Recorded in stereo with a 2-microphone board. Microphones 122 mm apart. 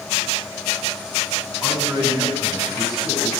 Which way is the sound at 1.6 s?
30° left (ahead or behind).